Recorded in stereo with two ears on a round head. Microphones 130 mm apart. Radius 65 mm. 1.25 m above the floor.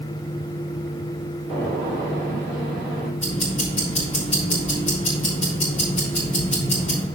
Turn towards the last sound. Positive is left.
turn(degrees=45)  # may be behind; listen again after turning